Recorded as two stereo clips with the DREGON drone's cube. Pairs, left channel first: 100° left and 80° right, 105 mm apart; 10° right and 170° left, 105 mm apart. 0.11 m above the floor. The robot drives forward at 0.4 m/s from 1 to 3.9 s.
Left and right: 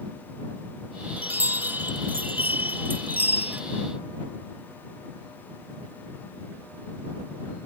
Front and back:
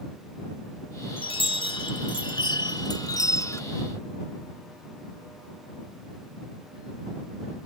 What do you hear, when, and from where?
1.2 s a chime: 10° right; by 3.6 s 30° right